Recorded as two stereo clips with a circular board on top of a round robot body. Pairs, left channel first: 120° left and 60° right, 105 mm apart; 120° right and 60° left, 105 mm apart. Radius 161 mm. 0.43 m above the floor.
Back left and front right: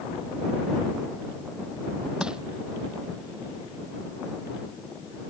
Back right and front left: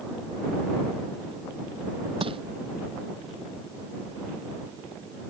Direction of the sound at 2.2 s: 25° left.